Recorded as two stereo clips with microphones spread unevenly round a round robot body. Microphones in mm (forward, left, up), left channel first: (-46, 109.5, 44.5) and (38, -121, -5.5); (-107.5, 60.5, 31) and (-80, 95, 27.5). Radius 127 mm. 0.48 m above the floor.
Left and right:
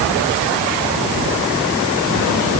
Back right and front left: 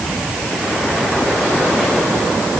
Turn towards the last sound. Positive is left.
No sound to turn to.